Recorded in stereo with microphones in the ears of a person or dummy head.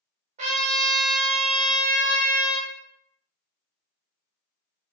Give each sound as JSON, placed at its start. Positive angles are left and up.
{"t": 0.4, "sound": "a trumpet", "side_deg": -45, "distance_m": 0.7}